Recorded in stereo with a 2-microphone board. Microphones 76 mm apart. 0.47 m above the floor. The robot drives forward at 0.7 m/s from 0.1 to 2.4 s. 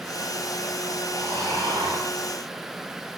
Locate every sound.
1.1 s snoring: 70° right (ahead or behind), 5.5 m; by 2.1 s 65° right (ahead or behind), 6 m